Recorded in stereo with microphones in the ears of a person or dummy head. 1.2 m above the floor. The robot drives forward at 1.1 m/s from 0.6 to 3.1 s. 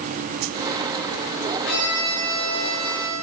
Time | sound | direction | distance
1.6 | a violin | 55° left (ahead or behind) | 6 m